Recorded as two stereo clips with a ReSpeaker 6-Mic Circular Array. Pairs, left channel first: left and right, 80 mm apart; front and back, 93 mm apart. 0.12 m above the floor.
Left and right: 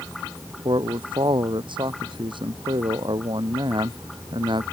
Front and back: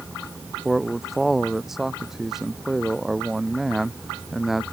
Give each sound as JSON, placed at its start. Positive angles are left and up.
{"t": 0.7, "sound": "a man speaking", "azimuth_deg": -90}